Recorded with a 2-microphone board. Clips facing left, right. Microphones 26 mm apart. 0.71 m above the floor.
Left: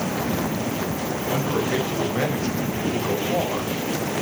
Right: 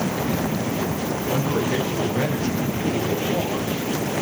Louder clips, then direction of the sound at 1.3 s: Even; 10° left (ahead or behind).